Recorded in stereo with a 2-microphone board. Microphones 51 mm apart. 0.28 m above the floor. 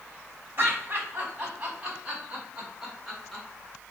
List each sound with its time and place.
0.6 s laughter: 40° right (ahead or behind), 1.6 m; by 3.5 s centre (ahead or behind), 2.5 m